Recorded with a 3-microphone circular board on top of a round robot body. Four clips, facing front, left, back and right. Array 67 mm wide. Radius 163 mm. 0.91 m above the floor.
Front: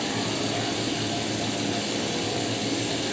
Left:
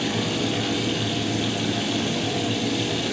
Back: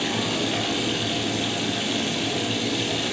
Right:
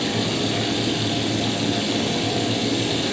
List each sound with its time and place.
0.0 s running water: 150° right, 8 m